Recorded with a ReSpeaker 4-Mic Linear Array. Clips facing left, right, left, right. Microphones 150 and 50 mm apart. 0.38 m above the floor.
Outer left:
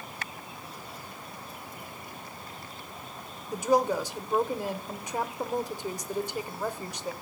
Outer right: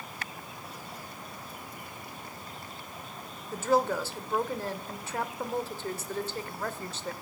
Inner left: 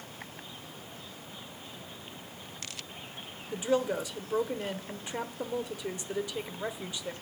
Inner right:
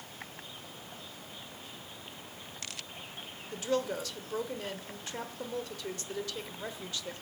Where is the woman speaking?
15° left (ahead or behind), 0.9 m.